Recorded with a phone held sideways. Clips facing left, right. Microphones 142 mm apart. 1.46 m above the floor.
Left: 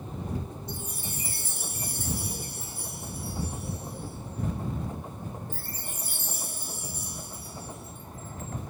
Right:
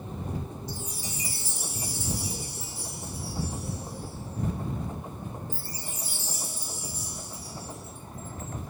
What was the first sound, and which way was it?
A chime, 55° left (ahead or behind).